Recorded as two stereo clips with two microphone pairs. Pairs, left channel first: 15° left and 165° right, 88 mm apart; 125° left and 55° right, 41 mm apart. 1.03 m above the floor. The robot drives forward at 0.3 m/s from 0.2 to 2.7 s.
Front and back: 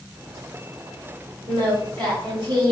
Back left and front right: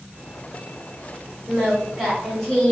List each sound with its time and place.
1.5 s singing: 140° right, 2 m; by 2.7 s 145° right, 2.5 m